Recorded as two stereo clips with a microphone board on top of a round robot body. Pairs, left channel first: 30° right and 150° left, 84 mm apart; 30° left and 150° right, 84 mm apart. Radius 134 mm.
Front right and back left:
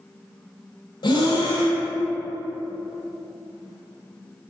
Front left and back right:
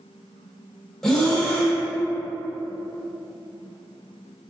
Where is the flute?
No flute in this recording.